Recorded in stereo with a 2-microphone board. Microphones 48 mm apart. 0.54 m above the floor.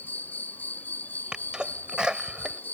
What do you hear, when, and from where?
0.0 s an insect: 40° left (ahead or behind)
1.3 s a sneeze: 15° right (ahead or behind)